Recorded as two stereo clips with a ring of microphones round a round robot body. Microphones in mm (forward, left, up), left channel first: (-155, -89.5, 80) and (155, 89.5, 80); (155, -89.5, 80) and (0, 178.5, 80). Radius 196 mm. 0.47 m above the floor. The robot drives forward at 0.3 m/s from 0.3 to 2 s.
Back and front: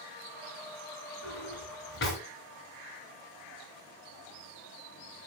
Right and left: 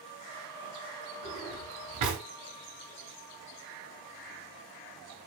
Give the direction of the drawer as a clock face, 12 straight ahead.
7 o'clock.